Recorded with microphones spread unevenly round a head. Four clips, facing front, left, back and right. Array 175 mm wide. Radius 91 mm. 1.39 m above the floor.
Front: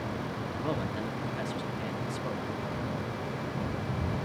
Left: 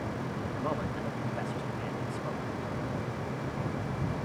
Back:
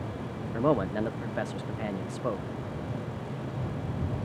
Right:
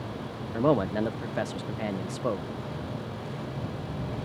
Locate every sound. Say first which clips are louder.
0.5 s a man speaking: right 12 dB, back 9 dB; 110° right